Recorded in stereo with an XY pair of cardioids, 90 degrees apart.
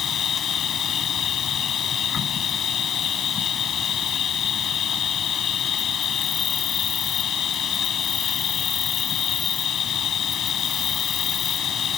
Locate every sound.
0.0 s an insect: 65° left